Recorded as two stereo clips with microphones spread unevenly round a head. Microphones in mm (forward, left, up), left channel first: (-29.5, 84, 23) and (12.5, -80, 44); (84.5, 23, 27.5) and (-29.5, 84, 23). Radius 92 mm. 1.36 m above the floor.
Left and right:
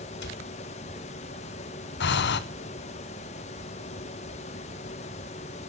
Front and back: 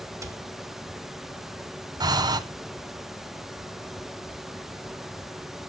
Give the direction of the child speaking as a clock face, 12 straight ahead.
I don't hear a child speaking.